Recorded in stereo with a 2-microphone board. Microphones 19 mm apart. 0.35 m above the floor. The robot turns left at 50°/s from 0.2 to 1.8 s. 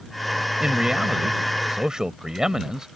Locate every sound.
0.6 s a man speaking: 55° right; by 2.9 s 115° right